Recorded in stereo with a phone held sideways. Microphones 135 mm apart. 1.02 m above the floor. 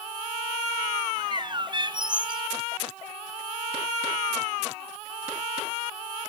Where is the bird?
35° right (ahead or behind), 0.5 m.